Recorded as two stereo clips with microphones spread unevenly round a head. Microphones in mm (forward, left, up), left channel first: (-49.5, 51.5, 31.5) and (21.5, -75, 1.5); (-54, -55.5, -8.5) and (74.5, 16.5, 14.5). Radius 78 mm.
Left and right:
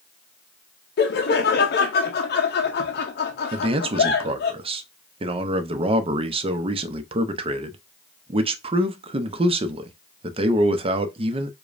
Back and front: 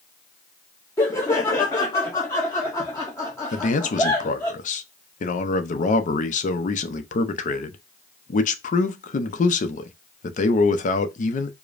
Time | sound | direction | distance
1.0 | laughter | 140° left | 0.5 m
3.5 | a man speaking | 115° right | 0.7 m